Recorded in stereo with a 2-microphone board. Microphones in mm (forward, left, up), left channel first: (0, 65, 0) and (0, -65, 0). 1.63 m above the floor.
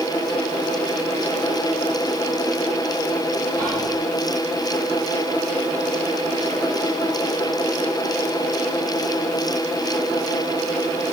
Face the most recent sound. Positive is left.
turn(degrees=10)  # may be behind; listen again after turning